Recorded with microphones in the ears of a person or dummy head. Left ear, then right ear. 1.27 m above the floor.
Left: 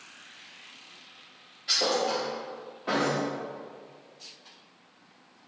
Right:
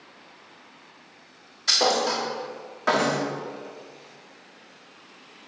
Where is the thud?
50° right (ahead or behind), 1.2 m.